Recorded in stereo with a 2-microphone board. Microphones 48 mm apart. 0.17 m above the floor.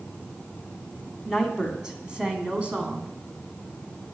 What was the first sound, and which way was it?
A woman speaking, 5° right (ahead or behind).